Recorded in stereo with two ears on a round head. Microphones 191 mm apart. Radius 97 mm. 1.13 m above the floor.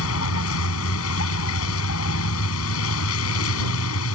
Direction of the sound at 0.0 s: 65° left (ahead or behind).